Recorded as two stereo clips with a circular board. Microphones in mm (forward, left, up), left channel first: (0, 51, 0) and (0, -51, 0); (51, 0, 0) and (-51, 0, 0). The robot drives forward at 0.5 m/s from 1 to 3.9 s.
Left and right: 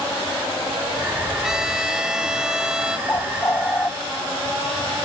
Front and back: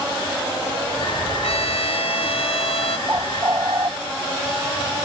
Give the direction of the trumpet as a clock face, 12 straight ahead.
12 o'clock.